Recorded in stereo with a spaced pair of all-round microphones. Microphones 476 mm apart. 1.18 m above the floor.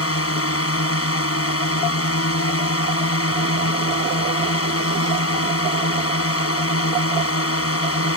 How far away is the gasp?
I don't hear a gasp.